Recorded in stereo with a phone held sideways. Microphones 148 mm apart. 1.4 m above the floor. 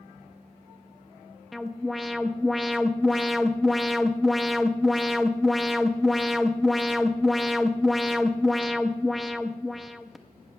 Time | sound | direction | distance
1.5 | an alarm | centre (ahead or behind) | 0.5 m